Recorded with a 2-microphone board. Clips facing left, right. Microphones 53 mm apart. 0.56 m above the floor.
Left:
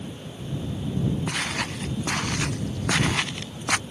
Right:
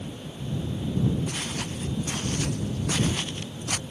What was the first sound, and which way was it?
Footsteps, 80° left.